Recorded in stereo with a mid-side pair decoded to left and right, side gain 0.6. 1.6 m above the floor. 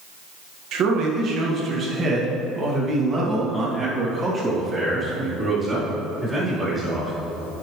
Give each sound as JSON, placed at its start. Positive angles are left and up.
{"t": 0.7, "sound": "a man speaking", "azimuth_deg": -55, "distance_m": 1.8}